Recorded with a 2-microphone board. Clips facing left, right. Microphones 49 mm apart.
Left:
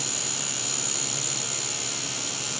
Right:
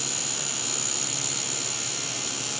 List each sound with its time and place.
Only background noise.